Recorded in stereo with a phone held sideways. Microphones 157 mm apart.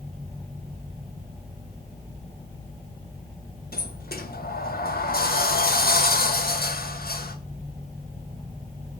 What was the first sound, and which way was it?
A sliding door, 75° left (ahead or behind).